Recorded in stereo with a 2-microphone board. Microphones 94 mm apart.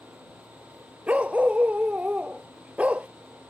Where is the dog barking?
15° right (ahead or behind).